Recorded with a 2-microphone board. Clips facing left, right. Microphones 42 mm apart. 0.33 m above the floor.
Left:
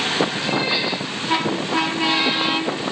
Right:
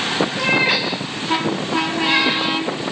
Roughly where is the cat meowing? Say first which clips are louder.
Right 4 dB; right.